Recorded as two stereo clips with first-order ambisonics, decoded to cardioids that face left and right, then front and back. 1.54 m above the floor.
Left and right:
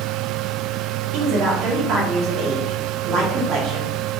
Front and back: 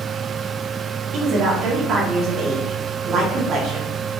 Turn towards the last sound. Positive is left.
turn(degrees=-135)